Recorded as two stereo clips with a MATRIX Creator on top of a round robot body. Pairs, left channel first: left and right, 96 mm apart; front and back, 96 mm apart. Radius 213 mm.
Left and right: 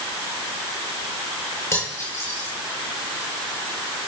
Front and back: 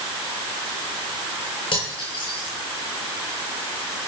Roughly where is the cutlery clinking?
Ahead left.